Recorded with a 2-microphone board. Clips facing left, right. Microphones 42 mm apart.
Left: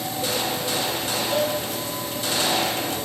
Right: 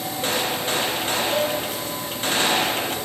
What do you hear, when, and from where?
0.2 s a gunshot: 40° right (ahead or behind), 0.6 m